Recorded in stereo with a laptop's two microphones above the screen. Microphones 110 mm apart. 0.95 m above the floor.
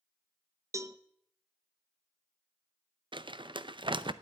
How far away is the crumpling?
About 0.5 m.